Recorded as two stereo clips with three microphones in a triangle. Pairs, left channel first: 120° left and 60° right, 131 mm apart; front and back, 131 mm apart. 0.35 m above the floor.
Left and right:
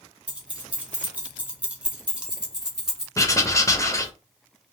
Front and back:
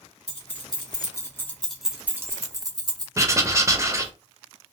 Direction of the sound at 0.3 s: 20° left.